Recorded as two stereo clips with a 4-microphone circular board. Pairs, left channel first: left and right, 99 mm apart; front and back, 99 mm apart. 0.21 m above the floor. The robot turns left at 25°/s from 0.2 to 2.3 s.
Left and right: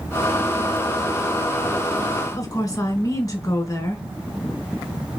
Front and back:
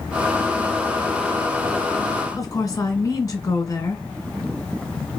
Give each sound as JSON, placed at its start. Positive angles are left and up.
{"t": 2.4, "sound": "a woman speaking", "azimuth_deg": 45, "distance_m": 1.7}